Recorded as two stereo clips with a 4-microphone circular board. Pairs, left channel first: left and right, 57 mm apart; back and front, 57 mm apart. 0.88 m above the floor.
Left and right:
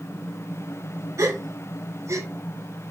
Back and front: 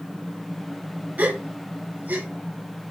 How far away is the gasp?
About 0.6 m.